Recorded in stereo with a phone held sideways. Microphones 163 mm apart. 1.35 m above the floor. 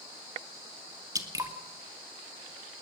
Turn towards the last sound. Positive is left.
turn(degrees=-20)  # may be behind; listen again after turning